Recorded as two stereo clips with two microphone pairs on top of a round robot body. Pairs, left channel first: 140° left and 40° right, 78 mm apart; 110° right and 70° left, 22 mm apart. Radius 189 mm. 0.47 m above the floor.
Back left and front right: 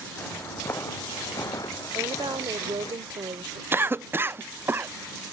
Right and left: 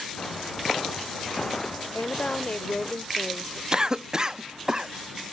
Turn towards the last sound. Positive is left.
turn(degrees=10)